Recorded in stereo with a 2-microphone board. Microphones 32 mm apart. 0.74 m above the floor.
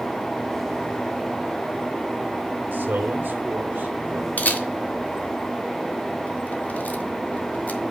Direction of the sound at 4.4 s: 50° left (ahead or behind).